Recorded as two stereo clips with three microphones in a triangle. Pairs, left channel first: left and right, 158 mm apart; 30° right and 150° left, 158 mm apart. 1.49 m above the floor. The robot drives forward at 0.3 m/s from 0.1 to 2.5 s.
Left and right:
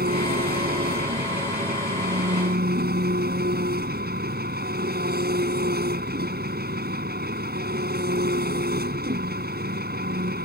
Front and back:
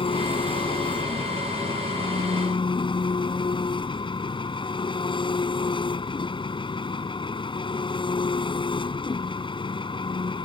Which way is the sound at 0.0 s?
85° right.